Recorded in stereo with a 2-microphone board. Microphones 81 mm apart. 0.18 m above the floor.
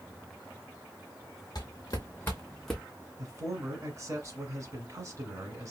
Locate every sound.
1.6 s footsteps: 50° left (ahead or behind), 1.5 m; by 2.8 s 5° right (ahead or behind), 0.8 m
3.2 s a man speaking: 40° right (ahead or behind), 1.4 m